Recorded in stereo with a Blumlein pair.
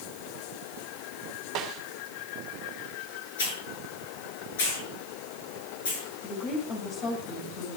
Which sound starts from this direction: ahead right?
A snare drum, at 1.6 s.